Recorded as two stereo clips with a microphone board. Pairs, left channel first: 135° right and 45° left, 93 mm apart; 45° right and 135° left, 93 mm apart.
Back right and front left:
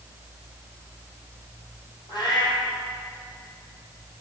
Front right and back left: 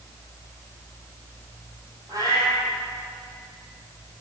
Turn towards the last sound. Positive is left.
turn(degrees=-175)